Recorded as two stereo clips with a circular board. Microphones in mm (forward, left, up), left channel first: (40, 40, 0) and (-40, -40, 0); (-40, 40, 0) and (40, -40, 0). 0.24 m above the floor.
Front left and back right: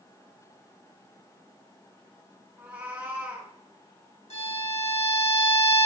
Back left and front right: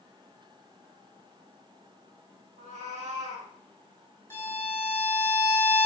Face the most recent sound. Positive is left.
turn(degrees=65)